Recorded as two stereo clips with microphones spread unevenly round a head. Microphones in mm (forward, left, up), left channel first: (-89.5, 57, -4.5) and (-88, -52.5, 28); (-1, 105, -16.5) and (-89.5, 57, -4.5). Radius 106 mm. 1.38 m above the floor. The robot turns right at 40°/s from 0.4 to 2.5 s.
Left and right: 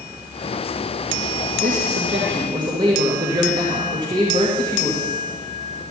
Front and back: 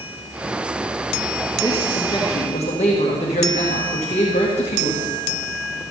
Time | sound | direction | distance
1.6 | a man speaking | 55° right | 1.7 m